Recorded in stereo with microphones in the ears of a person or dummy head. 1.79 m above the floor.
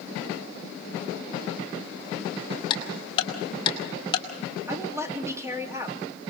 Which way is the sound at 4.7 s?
15° right (ahead or behind).